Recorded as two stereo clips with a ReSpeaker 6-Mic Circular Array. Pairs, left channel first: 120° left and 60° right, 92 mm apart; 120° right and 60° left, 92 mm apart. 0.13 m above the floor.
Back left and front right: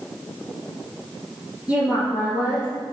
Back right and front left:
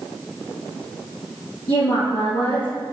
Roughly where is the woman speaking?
Behind right.